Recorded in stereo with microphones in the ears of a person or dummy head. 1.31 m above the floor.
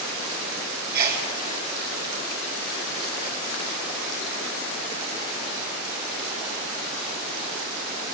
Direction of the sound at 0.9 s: 55° right (ahead or behind).